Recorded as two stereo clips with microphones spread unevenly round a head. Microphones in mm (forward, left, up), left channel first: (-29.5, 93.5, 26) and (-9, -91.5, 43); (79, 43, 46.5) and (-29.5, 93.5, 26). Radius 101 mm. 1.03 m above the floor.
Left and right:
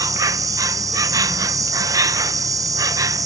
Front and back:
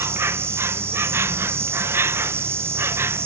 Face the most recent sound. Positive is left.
turn(degrees=-155)